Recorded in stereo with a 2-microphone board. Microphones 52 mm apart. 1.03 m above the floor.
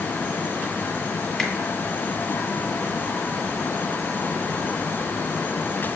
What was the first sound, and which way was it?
A finger snap, 5° left (ahead or behind).